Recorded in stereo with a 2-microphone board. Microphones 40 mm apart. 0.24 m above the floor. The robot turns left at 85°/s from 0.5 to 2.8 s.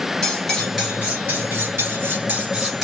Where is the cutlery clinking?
15° left, 2 m; by 2.8 s straight behind, 2 m.